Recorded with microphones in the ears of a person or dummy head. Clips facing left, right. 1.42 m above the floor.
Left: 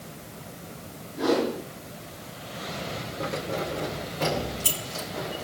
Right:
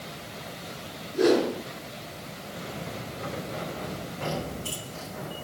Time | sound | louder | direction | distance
1.1 | a whoosh | right 3 dB | 75° right (ahead or behind) | 5.5 m
3.2 | keys jangling | left 5 dB | 65° left (ahead or behind) | 3 m